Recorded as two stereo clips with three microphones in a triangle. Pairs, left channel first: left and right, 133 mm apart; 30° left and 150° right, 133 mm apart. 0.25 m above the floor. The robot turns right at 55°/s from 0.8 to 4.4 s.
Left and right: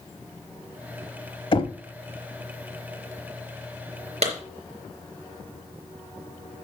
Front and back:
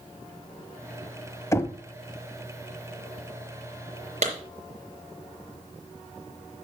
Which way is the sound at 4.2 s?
125° right.